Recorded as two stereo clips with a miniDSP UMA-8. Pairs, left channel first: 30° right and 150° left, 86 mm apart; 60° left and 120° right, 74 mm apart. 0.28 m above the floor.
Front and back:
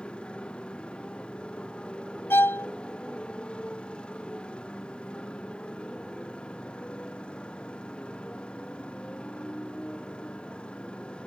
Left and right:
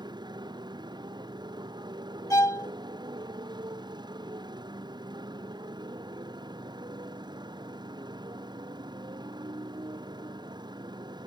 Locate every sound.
0.0 s a motorcycle: 110° right
2.3 s a violin: 30° left